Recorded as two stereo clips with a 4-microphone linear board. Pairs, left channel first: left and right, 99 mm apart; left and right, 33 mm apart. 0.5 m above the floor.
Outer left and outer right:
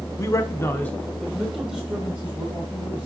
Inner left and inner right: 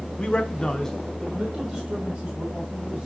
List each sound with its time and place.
0.2 s a man speaking: 35° left (ahead or behind), 1.1 m; by 3.1 s 15° right (ahead or behind), 3.5 m